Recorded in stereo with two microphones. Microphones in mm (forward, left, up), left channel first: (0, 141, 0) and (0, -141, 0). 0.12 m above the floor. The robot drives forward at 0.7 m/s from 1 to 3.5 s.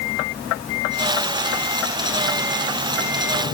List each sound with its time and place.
Only background noise.